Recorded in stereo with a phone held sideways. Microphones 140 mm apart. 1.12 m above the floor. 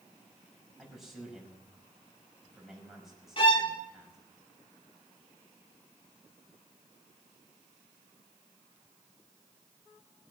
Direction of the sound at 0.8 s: Centre (ahead or behind).